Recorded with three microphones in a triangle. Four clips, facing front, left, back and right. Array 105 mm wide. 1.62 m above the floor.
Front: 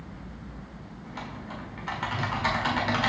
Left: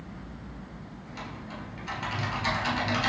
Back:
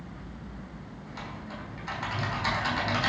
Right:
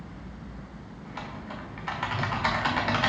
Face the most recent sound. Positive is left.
turn(degrees=-65)